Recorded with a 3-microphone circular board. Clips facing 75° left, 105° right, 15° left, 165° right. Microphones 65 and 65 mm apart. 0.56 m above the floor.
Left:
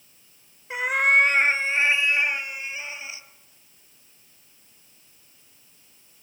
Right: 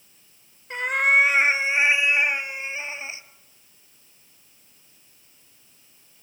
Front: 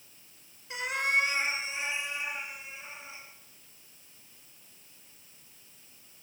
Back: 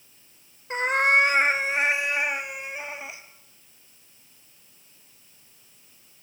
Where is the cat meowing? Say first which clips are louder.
Even, back 8 dB; 155° left, 1.0 m; by 3.2 s 165° right, 2.0 m.